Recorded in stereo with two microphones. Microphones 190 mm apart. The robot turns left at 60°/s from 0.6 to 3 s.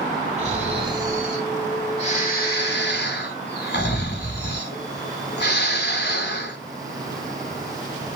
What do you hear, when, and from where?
0.4 s snoring: 135° right, 1.1 m; by 6.6 s 80° left, 1.1 m